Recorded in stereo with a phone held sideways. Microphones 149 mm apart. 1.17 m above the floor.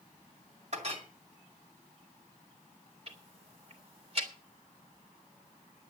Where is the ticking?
45° right (ahead or behind), 2.5 m.